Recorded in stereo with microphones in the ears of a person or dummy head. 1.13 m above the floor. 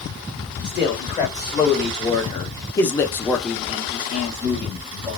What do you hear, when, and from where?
0.6 s a man speaking: 20° left (ahead or behind), 1.8 m; by 5.2 s 10° right (ahead or behind), 1.6 m